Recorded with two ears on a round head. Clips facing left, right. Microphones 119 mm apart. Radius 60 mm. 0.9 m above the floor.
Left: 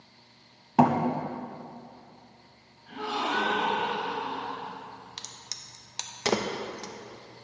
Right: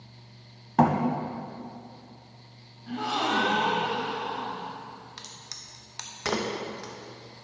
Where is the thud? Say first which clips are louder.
Left 1 dB; 10° left (ahead or behind), 0.8 m.